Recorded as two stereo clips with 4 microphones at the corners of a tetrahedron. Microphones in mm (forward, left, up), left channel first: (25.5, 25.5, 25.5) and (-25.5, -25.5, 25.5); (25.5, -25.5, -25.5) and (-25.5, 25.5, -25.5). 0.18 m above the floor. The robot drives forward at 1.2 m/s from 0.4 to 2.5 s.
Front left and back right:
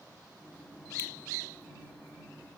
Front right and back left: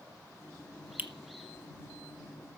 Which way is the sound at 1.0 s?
85° left.